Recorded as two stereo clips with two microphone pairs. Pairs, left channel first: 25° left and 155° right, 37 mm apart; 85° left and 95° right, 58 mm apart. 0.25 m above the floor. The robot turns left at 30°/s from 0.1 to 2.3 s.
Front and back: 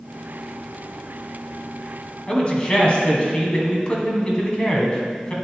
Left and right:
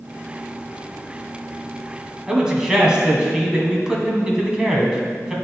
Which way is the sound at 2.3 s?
20° right.